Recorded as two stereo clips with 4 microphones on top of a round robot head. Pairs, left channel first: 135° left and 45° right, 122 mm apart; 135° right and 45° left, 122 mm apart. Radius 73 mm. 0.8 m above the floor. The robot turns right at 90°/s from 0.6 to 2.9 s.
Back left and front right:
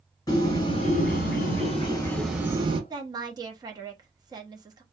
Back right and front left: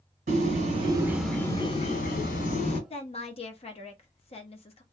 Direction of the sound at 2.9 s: 100° right.